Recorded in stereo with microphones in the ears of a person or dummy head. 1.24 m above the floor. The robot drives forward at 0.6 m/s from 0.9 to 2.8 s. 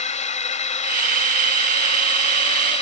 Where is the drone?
35° left (ahead or behind); by 2.8 s 30° left (ahead or behind).